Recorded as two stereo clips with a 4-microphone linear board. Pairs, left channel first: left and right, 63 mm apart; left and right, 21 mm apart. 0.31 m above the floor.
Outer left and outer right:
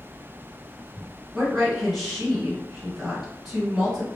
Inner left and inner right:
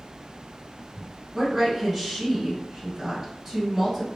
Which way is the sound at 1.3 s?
10° right (ahead or behind).